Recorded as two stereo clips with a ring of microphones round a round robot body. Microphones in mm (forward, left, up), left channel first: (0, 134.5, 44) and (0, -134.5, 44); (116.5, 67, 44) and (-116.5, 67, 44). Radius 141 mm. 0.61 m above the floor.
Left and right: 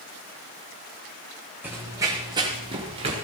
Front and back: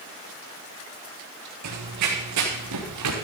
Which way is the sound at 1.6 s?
175° right.